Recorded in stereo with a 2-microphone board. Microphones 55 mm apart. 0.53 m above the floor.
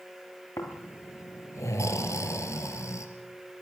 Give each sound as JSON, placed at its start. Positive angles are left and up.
{"t": 0.6, "sound": "snoring", "side_deg": 65, "distance_m": 3.0}